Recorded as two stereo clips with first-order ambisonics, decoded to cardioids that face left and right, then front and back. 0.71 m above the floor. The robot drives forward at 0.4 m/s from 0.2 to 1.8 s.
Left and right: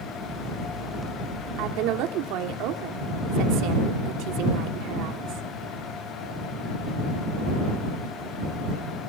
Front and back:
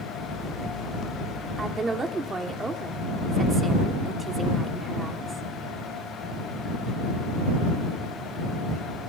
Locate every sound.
1.6 s a woman speaking: 105° right, 1.6 m